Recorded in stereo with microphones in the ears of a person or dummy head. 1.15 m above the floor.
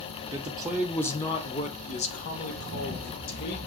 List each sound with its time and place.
0.3 s a man speaking: 20° right (ahead or behind), 0.6 m; by 3.6 s 50° left (ahead or behind), 1.5 m